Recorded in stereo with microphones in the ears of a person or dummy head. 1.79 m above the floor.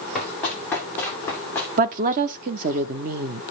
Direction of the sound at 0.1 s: Centre (ahead or behind).